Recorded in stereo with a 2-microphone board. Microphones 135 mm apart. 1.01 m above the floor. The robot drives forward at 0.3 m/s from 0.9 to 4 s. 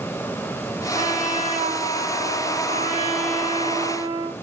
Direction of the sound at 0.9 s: 85° right.